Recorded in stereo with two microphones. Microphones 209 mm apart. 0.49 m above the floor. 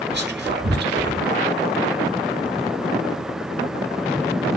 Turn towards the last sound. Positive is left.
turn(degrees=-55)  # may be behind; listen again after turning